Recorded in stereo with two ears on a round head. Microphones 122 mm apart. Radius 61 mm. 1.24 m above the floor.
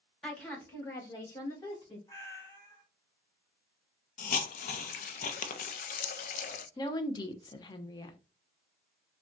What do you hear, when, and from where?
0.2 s a woman speaking: 5° left (ahead or behind), 1.2 m; by 2.0 s 30° left (ahead or behind), 2 m
2.1 s a cat meowing: 25° left (ahead or behind), 1.3 m
4.2 s a hiss: 60° left (ahead or behind), 0.5 m
6.8 s a woman speaking: 30° left (ahead or behind), 0.7 m